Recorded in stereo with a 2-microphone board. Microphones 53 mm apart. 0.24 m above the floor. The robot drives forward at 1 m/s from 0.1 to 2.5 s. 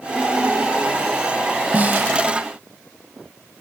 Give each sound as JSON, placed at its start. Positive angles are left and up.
{"t": 1.7, "sound": "a snare drum", "side_deg": -30}